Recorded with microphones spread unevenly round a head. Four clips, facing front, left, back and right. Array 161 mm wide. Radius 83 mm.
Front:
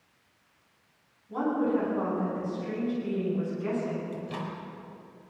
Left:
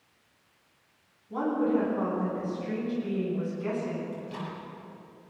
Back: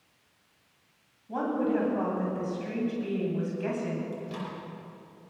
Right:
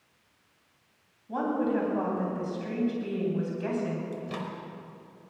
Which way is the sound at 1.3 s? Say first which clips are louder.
Left 1 dB, front 1 dB; 130° right.